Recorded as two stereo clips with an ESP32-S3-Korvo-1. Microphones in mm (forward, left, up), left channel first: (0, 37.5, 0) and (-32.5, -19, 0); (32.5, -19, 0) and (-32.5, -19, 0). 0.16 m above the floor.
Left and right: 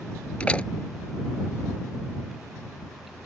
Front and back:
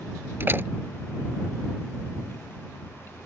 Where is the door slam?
130° left.